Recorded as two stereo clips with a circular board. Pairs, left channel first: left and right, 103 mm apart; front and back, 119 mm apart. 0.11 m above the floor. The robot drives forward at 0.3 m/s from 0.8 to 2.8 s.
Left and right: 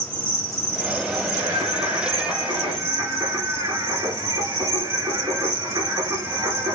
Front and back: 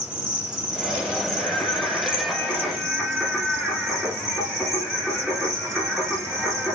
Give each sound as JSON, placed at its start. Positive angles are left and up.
{"t": 0.0, "sound": "an insect", "azimuth_deg": -110, "distance_m": 2.0}
{"t": 1.4, "sound": "singing", "azimuth_deg": -60, "distance_m": 1.4}